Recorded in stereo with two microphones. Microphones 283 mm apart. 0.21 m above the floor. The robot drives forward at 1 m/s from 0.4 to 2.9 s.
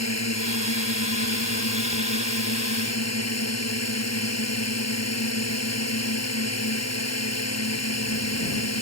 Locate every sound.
0.0 s a drone: 70° left (ahead or behind)